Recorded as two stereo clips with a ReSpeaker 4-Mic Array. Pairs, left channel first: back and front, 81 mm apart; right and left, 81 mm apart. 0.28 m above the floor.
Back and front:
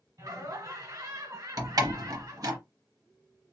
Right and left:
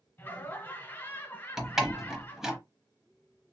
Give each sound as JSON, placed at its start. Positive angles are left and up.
{"t": 0.2, "sound": "laughter", "azimuth_deg": -30, "distance_m": 1.6}
{"t": 1.6, "sound": "a door slam", "azimuth_deg": 5, "distance_m": 0.8}